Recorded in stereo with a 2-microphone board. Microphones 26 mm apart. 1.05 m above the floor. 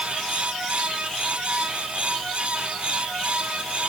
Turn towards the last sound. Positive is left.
No sound to turn to.